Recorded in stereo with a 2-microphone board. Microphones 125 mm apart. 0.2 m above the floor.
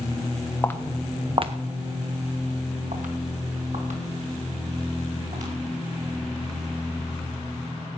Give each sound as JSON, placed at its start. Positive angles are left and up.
{"t": 0.6, "sound": "footsteps", "side_deg": 20, "distance_m": 1.0}